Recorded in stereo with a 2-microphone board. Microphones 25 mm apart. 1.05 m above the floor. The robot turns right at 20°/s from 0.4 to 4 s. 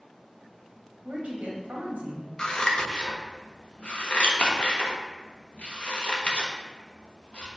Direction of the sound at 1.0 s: 65° right (ahead or behind).